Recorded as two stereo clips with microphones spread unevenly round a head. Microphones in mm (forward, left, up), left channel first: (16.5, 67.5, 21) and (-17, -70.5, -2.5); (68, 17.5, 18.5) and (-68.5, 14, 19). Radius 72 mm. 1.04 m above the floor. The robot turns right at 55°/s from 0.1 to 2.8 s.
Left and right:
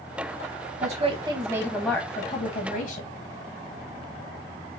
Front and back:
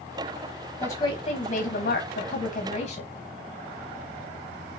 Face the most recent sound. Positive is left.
turn(degrees=45)